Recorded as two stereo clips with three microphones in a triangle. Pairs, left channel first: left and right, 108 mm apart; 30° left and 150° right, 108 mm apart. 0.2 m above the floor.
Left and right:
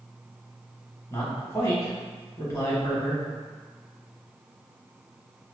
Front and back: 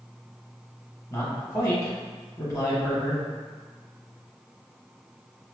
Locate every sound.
1.1 s a man speaking: 60° left, 1.5 m